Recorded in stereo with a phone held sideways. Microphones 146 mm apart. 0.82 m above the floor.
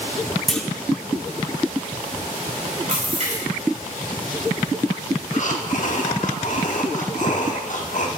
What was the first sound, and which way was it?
A clunk, 5° left (ahead or behind).